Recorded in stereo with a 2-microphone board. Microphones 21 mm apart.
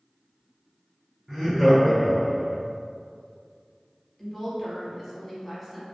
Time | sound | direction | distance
1.3 | laughter | 25° right (ahead or behind) | 1.5 m
4.2 | a woman speaking | 5° right (ahead or behind) | 1.0 m